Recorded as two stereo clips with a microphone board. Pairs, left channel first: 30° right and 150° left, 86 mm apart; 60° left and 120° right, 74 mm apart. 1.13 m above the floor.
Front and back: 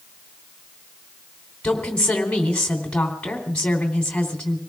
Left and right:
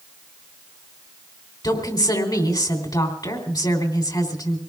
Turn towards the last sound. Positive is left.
turn(degrees=50)